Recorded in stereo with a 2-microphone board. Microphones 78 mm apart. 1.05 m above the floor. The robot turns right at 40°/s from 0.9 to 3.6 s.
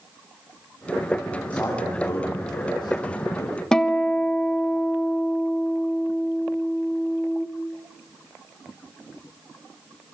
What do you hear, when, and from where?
1.5 s a man speaking: 20° left (ahead or behind), 6.5 m; by 3.6 s 75° left (ahead or behind), 6.5 m
3.7 s a guitar: 10° left (ahead or behind), 1.2 m